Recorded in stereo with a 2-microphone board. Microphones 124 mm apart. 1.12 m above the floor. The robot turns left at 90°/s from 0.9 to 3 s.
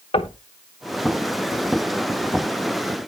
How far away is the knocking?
About 1.1 m.